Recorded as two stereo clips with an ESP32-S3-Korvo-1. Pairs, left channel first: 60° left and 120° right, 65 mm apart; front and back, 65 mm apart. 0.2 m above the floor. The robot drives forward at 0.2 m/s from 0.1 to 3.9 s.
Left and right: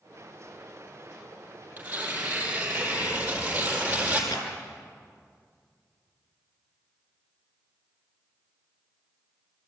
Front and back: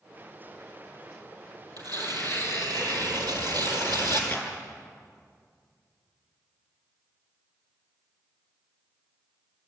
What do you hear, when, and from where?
1.8 s tearing paper: straight behind, 5.5 m
4.3 s a clap: 70° left, 4.5 m